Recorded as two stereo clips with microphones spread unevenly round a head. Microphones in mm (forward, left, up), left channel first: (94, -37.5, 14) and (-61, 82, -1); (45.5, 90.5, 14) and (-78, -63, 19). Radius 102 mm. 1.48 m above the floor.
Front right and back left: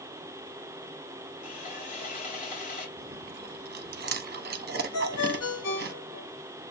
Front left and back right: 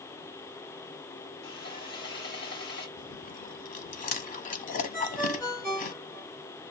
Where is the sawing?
10° left, 3 m.